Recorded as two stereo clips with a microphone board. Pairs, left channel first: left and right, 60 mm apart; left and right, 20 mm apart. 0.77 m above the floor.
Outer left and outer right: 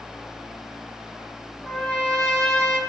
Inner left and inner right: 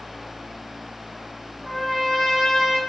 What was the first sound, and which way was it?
A trumpet, 10° left (ahead or behind).